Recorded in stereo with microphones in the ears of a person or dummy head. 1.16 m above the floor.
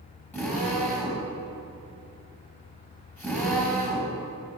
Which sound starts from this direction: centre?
A drill, at 0.3 s.